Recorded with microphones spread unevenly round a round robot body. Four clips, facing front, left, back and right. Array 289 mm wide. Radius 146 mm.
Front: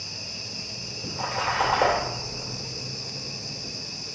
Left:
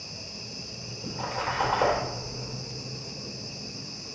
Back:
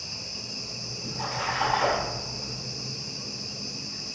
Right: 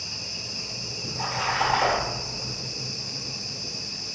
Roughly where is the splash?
Ahead left.